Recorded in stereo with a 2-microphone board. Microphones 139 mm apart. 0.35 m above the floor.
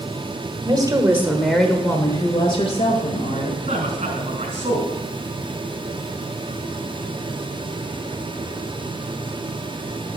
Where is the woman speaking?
30° right (ahead or behind), 1.2 m; by 3.5 s 55° left (ahead or behind), 1.9 m.